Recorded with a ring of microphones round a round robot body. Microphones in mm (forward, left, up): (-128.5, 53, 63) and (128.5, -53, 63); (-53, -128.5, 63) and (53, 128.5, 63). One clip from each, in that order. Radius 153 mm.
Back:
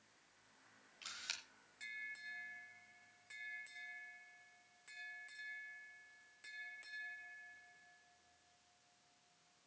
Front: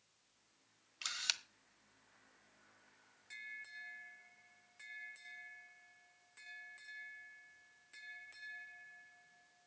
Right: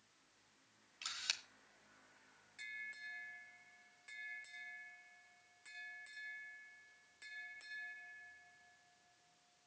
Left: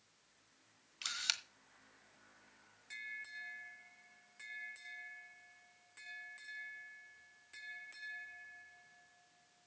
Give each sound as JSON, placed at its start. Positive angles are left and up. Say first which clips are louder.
{"t": 1.0, "sound": "a camera shutter", "louder": "front 8 dB, left 4 dB", "azimuth_deg": -5, "distance_m": 1.4}